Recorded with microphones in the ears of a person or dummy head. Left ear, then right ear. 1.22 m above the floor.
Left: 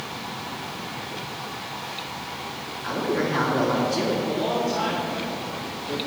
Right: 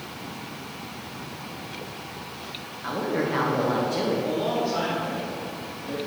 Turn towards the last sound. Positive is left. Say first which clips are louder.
# left 1 dB
turn(degrees=-50)  # may be behind; listen again after turning